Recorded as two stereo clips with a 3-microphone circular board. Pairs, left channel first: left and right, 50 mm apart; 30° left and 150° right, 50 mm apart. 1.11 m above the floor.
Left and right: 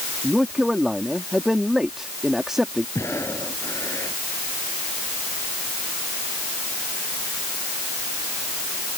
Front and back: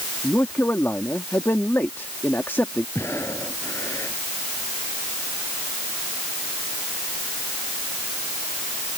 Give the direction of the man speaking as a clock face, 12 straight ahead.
12 o'clock.